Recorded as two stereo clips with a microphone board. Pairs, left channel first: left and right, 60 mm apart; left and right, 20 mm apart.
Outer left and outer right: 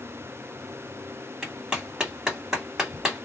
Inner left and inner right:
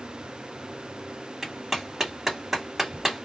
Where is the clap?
10° right (ahead or behind), 2.0 m.